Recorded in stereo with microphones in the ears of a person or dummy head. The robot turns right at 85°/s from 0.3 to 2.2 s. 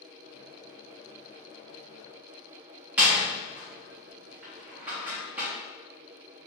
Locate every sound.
3.0 s a door slam: 10° right (ahead or behind), 0.6 m